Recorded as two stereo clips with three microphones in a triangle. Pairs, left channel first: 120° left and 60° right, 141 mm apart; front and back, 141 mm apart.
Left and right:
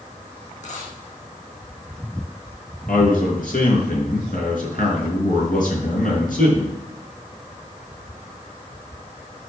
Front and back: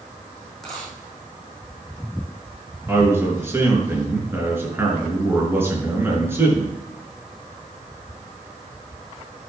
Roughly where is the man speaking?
Left.